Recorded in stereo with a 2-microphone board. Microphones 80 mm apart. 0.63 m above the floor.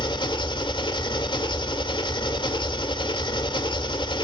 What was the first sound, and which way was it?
An engine running, 80° left.